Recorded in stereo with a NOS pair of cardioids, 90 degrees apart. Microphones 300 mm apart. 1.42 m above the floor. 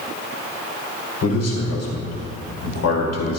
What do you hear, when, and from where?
1.2 s a man speaking: 60° left, 5.5 m